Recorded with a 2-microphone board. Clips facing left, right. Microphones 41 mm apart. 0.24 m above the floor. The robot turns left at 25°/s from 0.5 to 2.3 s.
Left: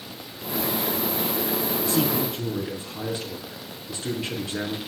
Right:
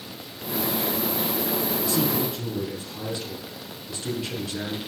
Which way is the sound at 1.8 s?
40° left (ahead or behind).